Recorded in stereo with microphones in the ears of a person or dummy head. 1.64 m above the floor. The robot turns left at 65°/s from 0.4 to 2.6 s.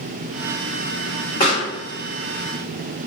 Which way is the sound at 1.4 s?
35° left (ahead or behind).